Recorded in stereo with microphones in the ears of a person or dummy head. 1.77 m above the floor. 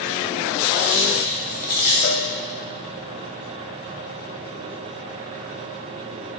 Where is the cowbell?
55° left (ahead or behind), 0.6 m.